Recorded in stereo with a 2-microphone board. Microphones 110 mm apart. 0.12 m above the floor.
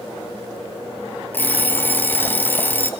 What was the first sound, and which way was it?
An alarm clock, 15° left (ahead or behind).